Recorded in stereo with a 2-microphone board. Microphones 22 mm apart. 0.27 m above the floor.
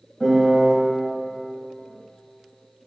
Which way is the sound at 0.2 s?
Centre (ahead or behind).